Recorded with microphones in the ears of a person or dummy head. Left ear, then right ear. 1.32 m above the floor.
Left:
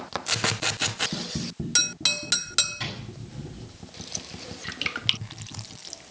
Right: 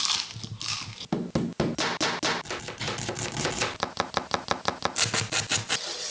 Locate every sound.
2.8 s a drawer: 10° left (ahead or behind), 5 m